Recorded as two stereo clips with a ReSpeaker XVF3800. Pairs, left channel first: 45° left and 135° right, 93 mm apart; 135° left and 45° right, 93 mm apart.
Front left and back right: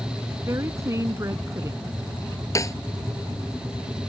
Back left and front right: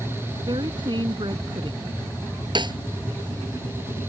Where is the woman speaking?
80° right.